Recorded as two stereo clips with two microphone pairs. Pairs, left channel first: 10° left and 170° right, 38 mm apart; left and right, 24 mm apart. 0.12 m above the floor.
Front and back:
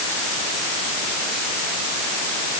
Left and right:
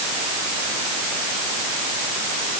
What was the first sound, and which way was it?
Only background noise.